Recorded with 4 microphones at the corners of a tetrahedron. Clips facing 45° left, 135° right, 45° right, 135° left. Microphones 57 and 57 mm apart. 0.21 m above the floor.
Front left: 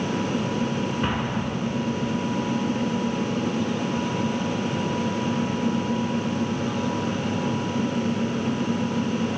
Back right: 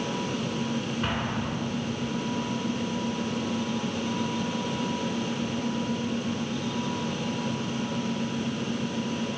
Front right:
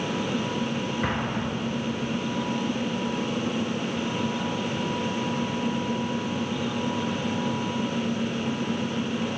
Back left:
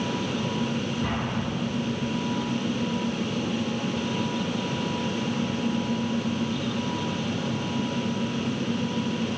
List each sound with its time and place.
1.0 s an explosion: 30° right, 1.9 m